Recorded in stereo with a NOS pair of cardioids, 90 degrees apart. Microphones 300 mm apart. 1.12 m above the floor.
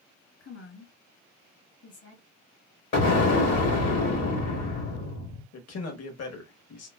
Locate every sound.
0.4 s a woman speaking: 50° left, 1.7 m
2.9 s an explosion: 60° left, 1.4 m
5.5 s a man speaking: 55° left, 1.3 m